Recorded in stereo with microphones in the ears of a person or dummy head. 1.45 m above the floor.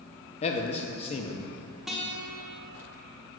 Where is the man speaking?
35° left (ahead or behind), 0.6 m.